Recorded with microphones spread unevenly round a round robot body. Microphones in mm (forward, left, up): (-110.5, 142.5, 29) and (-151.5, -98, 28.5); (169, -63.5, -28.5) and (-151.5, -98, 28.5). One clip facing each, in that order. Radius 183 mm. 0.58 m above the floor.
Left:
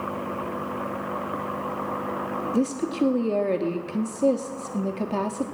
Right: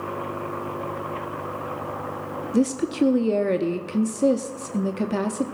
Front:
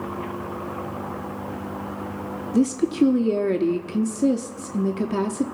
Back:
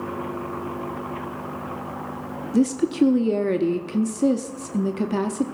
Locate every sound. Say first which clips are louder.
2.5 s a woman speaking: right 3 dB, even; 65° right, 0.6 m